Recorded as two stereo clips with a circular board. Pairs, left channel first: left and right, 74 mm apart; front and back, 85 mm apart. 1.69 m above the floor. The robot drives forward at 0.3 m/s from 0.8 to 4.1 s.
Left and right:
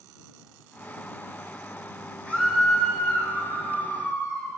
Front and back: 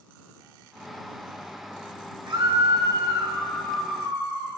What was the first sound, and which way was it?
A scream, 160° left.